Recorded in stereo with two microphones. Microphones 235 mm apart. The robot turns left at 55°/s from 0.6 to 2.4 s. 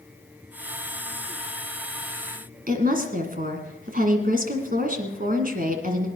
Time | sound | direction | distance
2.7 | a woman speaking | 40° right (ahead or behind) | 1.9 m